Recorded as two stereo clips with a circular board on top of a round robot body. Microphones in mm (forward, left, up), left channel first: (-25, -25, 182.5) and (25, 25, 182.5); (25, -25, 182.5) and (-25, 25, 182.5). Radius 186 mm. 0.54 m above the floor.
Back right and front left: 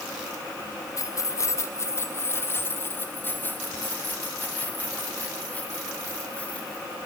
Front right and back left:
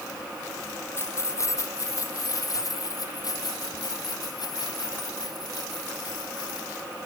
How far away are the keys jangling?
About 1.7 m.